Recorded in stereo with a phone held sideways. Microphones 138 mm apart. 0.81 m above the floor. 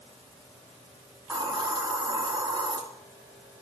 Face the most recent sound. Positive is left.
turn(degrees=-35)  # may be behind; listen again after turning